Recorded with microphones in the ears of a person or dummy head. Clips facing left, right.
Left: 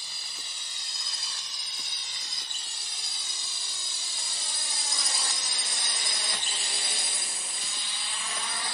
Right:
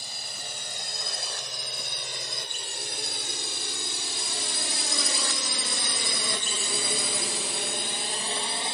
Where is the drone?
40° right (ahead or behind); by 8.7 s 20° right (ahead or behind).